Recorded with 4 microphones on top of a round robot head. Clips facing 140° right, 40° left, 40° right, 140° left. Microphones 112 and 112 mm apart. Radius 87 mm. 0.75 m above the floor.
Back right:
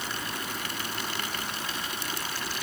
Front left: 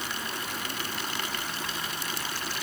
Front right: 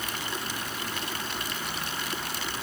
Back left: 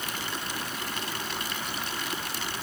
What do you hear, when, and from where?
Only background noise.